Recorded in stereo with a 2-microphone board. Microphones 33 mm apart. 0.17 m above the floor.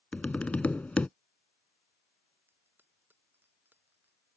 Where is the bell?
80° right.